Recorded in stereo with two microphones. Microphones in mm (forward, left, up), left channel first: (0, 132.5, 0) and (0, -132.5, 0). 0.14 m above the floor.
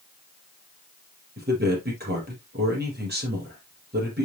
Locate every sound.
1.4 s a man speaking: 40° right (ahead or behind), 4.5 m